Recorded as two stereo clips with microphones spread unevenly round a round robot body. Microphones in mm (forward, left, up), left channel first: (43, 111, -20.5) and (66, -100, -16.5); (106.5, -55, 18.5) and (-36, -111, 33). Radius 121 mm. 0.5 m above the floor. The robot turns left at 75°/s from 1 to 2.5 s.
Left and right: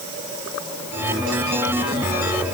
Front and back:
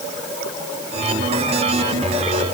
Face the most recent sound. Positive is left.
No sound to turn to.